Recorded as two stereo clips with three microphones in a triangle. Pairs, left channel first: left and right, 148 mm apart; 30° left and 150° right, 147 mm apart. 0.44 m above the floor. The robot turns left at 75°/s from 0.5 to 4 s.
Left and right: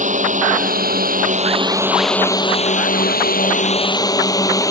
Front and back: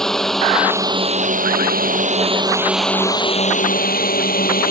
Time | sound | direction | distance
0.0 | a drone | 55° right | ?